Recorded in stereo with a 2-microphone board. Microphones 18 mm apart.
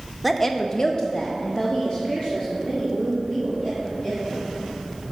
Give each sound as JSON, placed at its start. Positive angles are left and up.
{"t": 0.2, "sound": "a woman speaking", "side_deg": 5, "distance_m": 0.8}